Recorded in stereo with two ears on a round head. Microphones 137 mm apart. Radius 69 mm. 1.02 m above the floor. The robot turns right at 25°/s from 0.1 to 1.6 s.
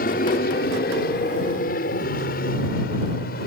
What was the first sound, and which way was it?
An aircraft, 60° left (ahead or behind).